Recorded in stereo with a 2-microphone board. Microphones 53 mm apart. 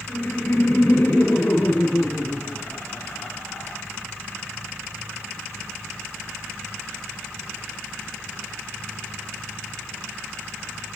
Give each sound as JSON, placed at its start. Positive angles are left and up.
{"t": 0.1, "sound": "laughter", "side_deg": 35, "distance_m": 1.4}